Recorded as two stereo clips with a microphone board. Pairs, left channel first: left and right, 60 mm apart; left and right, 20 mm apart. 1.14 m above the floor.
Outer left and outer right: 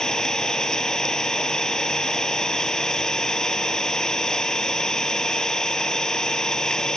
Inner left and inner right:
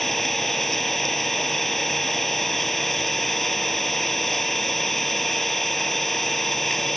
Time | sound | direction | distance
0.0 | an engine running | 10° left (ahead or behind) | ?